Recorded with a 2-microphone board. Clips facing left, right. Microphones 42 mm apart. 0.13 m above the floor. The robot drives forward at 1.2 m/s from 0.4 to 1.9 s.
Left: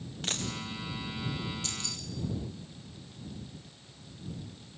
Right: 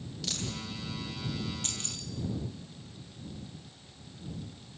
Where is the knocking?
I don't hear knocking.